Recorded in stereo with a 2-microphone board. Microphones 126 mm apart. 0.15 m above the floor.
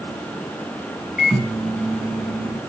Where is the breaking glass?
I don't hear breaking glass.